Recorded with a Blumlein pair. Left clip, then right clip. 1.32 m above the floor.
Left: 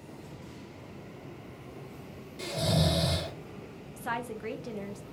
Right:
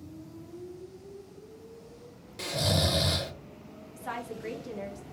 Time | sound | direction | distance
2.4 | snoring | 65° right | 0.8 m
4.0 | a woman speaking | 15° left | 0.7 m